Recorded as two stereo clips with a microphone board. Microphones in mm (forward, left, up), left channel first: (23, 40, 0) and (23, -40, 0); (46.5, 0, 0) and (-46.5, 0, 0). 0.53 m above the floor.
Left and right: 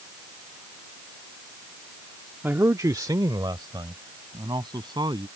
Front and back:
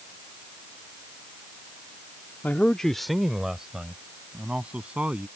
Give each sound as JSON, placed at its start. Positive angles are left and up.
{"t": 2.4, "sound": "a man speaking", "azimuth_deg": -50}